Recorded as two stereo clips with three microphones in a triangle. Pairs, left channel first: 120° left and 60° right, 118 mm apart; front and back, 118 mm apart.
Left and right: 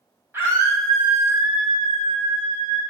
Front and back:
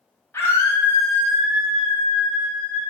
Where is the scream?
25° right, 1.0 m; by 2.8 s 70° right, 1.7 m.